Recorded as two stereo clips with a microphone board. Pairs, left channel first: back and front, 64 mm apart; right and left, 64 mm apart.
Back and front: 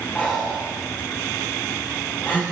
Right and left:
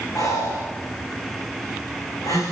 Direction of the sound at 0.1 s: 120° right.